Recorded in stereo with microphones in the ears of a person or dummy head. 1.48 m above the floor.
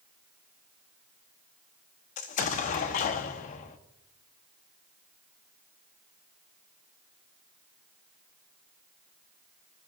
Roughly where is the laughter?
I don't hear laughter.